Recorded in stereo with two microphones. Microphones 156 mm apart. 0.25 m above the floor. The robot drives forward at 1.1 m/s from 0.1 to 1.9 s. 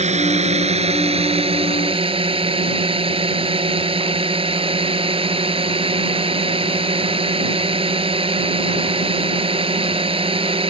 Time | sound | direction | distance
0.0 | a drone | 45° right (ahead or behind) | ?